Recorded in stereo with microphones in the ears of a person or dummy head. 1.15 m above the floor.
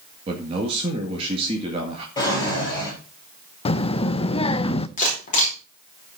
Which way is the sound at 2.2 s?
20° left (ahead or behind).